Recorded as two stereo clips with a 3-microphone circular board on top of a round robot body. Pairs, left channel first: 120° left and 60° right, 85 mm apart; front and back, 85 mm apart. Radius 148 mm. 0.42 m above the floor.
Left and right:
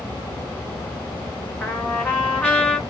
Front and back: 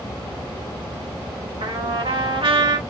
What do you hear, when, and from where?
1.6 s a trumpet: 165° right, 1.2 m